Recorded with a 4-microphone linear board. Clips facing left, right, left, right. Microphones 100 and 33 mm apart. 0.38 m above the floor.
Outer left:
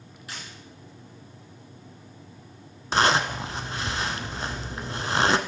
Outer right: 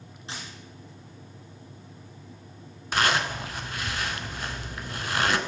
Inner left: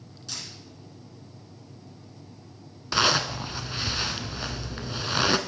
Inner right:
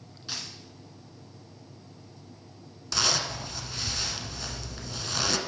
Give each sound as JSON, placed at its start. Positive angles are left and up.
{"t": 0.3, "sound": "a dropped coin", "side_deg": -25, "distance_m": 2.5}
{"t": 2.9, "sound": "a zipper", "side_deg": 30, "distance_m": 0.6}